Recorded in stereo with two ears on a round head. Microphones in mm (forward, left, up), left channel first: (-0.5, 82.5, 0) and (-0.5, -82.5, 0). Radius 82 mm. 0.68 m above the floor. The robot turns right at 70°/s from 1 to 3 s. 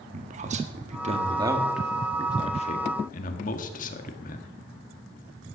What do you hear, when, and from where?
0.1 s a man speaking: 40° right (ahead or behind), 1.5 m; by 4.5 s 45° left (ahead or behind), 1.5 m